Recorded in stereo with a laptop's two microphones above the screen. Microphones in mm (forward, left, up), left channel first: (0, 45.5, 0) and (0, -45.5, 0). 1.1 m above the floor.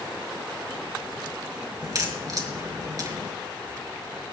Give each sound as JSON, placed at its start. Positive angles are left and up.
{"t": 1.8, "sound": "a crack", "side_deg": -40, "distance_m": 3.0}